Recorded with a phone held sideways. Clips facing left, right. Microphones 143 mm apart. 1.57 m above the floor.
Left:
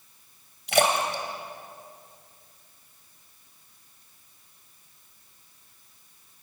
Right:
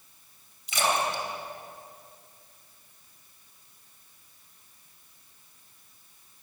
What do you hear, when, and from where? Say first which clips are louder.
0.7 s a splash: left 4 dB; 70° left (ahead or behind), 3.5 m